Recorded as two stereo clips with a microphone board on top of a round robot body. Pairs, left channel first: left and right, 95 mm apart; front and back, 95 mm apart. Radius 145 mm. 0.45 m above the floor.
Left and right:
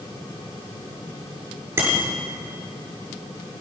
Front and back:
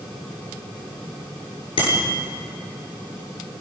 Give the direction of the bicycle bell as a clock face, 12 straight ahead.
1 o'clock.